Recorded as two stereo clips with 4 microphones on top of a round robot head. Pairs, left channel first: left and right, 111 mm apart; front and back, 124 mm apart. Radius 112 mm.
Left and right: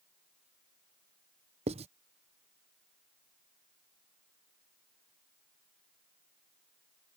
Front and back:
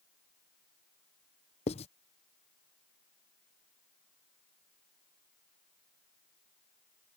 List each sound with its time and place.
1.7 s writing: 50° right